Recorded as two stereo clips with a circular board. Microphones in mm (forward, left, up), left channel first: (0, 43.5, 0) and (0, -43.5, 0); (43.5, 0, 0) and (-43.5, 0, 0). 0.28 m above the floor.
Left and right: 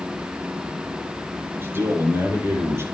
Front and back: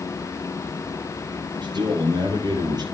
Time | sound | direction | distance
1.6 | a man speaking | 150° right | 7.5 m